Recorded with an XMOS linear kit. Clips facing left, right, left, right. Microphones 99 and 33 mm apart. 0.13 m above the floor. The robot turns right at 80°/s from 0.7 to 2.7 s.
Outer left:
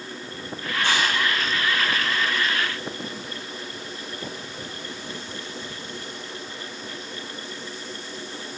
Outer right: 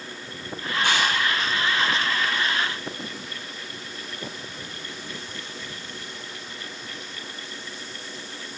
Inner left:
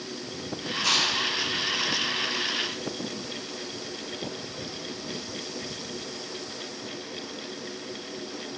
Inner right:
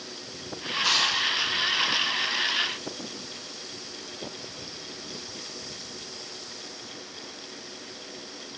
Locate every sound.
0.8 s chewing: 10° right (ahead or behind), 5 m; by 1.1 s 35° right (ahead or behind), 5 m